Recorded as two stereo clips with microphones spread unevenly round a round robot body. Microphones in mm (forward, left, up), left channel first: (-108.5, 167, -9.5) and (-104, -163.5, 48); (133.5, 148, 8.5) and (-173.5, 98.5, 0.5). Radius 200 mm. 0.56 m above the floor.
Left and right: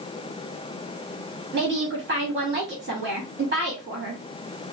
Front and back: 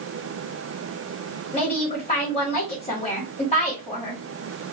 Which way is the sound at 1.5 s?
45° right.